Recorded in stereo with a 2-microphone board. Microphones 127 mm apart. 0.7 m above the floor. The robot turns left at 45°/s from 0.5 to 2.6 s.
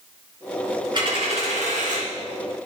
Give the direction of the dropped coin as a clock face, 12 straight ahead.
1 o'clock.